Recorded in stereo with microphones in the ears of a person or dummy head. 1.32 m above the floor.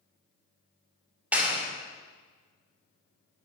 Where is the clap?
10° right (ahead or behind), 3.5 m.